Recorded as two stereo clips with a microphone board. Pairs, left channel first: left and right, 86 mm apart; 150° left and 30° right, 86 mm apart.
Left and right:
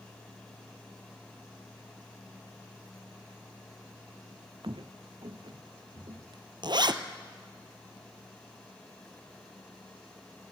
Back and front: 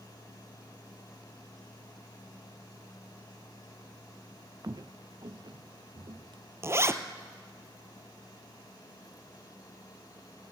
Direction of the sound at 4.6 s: 75° right.